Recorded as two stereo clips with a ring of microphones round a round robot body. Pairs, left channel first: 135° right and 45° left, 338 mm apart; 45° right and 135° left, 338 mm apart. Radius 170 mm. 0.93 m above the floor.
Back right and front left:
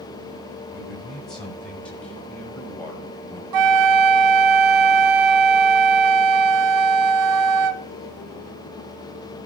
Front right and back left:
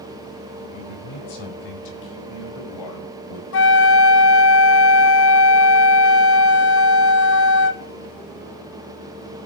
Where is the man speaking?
45° right, 8 m; by 3.4 s 55° right, 5.5 m.